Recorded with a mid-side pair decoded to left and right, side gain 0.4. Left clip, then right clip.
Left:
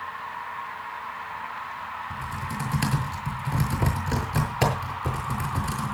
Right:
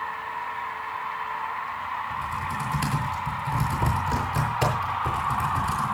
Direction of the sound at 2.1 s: 35° left.